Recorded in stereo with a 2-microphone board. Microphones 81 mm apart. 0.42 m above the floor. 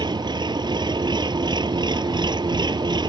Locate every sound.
0.0 s an engine running: 70° right (ahead or behind)